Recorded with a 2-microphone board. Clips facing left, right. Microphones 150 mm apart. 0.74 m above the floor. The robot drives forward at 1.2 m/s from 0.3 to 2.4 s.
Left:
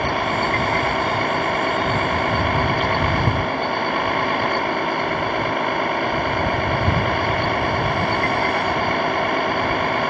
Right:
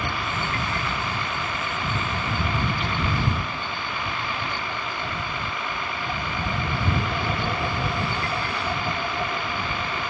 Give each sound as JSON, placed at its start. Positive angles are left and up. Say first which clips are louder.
{"t": 0.0, "sound": "a vehicle", "louder": "left 8 dB", "side_deg": 55}